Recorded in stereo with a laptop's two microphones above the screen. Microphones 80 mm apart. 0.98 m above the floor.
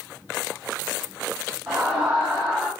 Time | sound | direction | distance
1.7 | a scream | 25° right (ahead or behind) | 2 m